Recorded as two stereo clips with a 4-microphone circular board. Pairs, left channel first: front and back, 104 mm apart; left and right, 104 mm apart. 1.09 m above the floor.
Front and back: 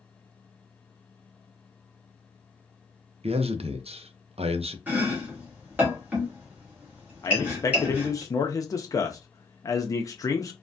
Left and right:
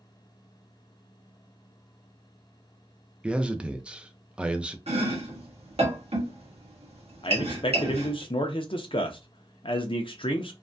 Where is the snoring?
I don't hear snoring.